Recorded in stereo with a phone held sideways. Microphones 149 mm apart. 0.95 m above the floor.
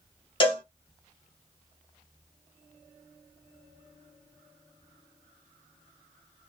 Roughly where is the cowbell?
Left.